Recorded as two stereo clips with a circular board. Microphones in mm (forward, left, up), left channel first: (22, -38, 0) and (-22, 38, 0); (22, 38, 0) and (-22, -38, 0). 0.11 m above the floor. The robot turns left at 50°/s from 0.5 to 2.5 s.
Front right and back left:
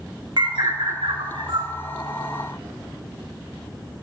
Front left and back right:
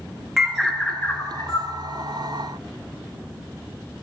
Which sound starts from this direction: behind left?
A bird, at 0.4 s.